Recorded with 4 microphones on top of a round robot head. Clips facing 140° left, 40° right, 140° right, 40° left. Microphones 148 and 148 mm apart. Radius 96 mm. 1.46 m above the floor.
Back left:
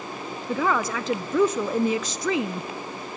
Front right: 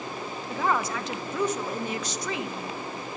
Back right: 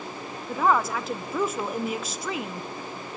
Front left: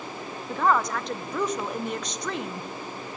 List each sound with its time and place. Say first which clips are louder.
0.5 s a woman speaking: back left 3 dB, back right 1 dB; 135° left, 1.2 m